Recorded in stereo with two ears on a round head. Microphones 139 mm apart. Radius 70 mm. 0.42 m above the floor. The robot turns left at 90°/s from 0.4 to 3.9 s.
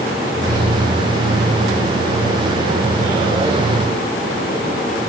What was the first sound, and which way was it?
Only background noise.